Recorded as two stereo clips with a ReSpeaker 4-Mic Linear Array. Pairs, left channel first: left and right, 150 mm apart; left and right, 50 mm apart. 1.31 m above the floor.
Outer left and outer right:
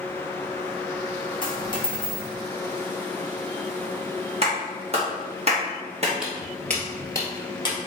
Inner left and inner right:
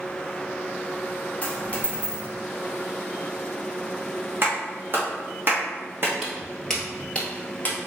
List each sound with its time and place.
1.4 s a dropped coin: 30° left (ahead or behind), 1.0 m
4.4 s a clap: 45° right (ahead or behind), 1.6 m
6.2 s footsteps: 5° right (ahead or behind), 1.6 m; by 7.8 s 35° left (ahead or behind), 1.8 m